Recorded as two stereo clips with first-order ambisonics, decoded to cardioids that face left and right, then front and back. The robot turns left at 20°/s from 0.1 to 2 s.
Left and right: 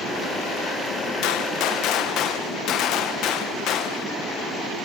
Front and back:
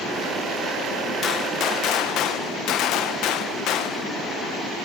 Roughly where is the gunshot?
Ahead left.